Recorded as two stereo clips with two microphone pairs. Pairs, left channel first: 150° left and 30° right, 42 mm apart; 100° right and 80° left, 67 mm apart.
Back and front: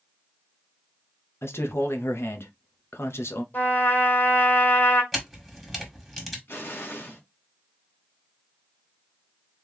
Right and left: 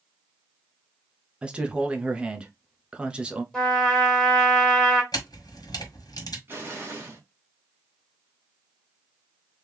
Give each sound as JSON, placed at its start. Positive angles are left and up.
{"t": 1.4, "sound": "a man speaking", "azimuth_deg": 155, "distance_m": 1.0}
{"t": 3.5, "sound": "a trumpet", "azimuth_deg": 180, "distance_m": 2.5}
{"t": 5.1, "sound": "a camera shutter", "azimuth_deg": -125, "distance_m": 2.0}
{"t": 6.5, "sound": "an explosion", "azimuth_deg": 135, "distance_m": 1.6}